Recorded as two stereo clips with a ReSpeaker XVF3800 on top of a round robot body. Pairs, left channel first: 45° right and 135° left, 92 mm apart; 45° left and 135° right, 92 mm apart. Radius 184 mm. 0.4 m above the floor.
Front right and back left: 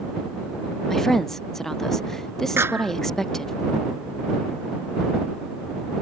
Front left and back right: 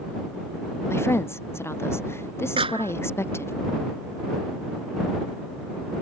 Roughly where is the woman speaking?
Ahead left.